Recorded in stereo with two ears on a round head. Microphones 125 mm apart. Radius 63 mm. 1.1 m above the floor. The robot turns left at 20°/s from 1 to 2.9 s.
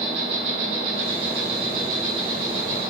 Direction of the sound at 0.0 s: 95° right.